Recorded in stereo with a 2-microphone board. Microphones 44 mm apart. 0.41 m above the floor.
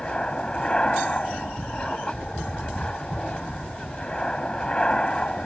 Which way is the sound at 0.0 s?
20° left (ahead or behind).